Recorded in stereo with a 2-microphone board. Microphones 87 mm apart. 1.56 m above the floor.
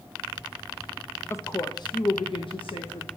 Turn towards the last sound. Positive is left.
turn(degrees=75)  # may be behind; listen again after turning